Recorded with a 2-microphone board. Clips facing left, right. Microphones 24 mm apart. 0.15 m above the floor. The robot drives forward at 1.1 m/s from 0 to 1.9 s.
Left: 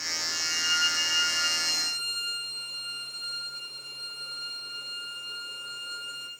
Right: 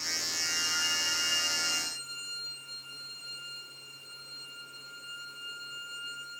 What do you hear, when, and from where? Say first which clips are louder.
0.3 s a violin: left 6 dB; 55° left (ahead or behind), 5.5 m; by 6.3 s 70° left (ahead or behind), 4.5 m